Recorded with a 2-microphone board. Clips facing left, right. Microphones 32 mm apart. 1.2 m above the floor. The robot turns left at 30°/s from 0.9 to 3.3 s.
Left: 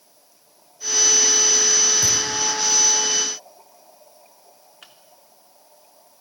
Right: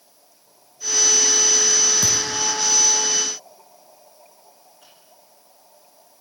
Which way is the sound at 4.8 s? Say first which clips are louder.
Left 6 dB; 70° left (ahead or behind).